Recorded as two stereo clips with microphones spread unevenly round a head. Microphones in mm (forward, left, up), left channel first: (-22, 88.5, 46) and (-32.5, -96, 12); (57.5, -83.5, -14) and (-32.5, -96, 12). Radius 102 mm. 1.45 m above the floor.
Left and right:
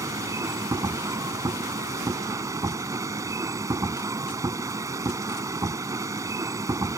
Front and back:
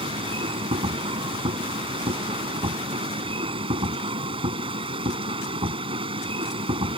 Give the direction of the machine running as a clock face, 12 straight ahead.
6 o'clock.